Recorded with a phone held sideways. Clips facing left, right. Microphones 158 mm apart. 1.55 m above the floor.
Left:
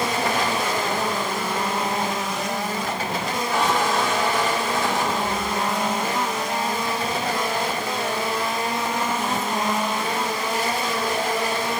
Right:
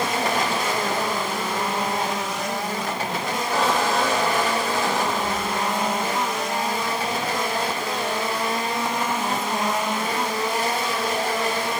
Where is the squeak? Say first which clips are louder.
Even; 40° right (ahead or behind), 3 m.